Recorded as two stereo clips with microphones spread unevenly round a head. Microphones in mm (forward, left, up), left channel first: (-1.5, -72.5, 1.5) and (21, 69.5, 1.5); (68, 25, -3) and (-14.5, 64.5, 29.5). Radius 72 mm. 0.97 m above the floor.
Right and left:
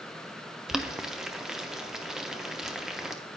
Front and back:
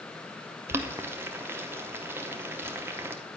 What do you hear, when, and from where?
0.7 s boiling: 165° left, 0.5 m